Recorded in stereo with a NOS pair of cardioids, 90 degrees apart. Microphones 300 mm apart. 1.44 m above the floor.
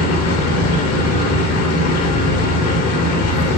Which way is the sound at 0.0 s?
60° left.